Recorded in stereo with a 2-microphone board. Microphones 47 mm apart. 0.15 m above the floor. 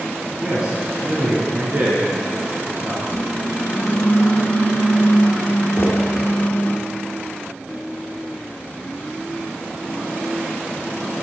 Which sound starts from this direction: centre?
A man speaking, at 0.4 s.